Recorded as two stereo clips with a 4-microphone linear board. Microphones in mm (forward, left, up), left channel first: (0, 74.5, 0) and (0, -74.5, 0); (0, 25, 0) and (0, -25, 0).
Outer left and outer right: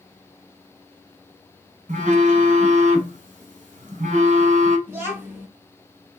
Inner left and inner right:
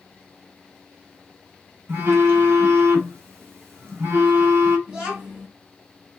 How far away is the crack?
I don't hear a crack.